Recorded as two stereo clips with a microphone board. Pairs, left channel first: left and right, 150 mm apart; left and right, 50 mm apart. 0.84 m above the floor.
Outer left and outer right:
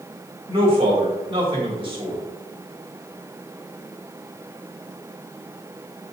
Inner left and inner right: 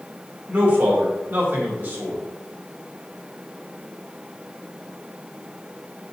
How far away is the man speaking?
About 1.6 m.